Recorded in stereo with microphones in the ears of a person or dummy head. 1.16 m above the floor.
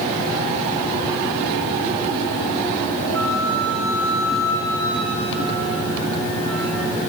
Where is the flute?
80° right, 6 m.